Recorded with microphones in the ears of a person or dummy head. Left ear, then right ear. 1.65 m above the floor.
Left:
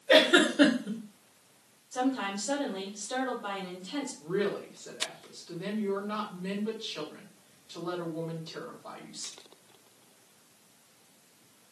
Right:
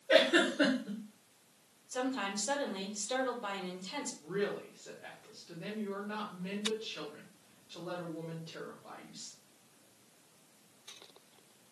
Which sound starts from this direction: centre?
A woman speaking, at 4.2 s.